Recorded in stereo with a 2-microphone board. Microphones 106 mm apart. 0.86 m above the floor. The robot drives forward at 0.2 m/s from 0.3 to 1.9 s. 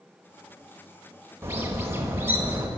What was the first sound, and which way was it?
A bird, 25° right (ahead or behind).